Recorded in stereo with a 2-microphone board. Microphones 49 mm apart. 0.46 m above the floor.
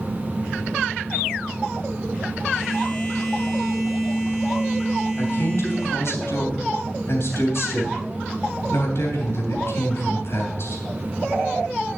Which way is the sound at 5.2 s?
60° left (ahead or behind).